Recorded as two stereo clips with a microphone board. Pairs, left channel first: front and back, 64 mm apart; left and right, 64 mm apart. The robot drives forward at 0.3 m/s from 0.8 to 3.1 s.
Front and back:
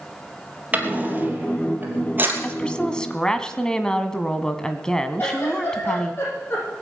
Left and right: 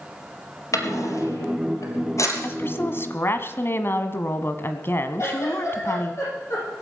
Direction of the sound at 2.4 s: 60° left.